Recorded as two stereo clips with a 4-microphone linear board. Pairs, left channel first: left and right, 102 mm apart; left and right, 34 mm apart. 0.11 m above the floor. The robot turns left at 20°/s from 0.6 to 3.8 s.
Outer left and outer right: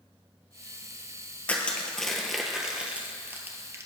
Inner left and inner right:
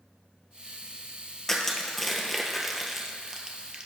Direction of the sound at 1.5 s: 15° left (ahead or behind).